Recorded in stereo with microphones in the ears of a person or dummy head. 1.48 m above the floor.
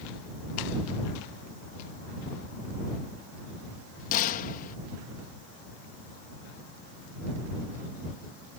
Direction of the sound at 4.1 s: 40° left (ahead or behind).